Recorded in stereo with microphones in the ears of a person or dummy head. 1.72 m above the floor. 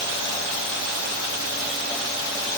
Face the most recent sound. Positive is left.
No sound to turn to.